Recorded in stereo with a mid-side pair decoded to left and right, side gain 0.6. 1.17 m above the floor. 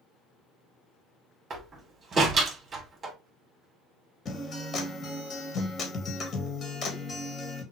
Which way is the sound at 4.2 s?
35° left.